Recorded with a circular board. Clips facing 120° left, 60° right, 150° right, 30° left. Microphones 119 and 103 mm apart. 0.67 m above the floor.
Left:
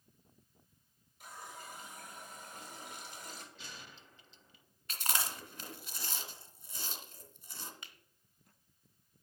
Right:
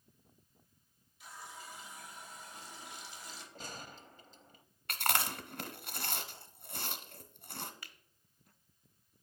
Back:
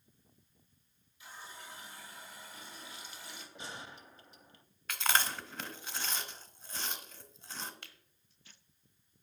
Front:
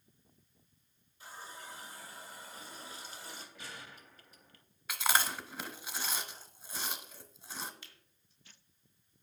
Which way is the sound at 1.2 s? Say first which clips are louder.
Left 1 dB, front 2 dB; 80° left.